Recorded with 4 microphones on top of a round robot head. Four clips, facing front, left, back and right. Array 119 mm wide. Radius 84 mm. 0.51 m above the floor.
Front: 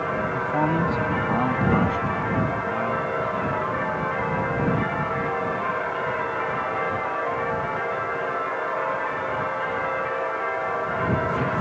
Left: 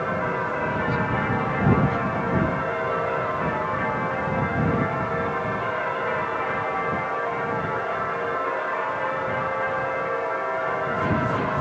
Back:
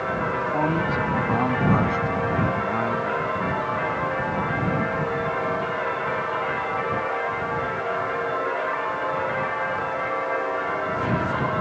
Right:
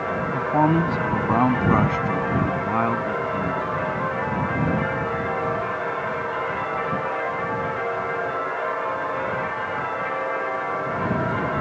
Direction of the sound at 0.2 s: 75° right.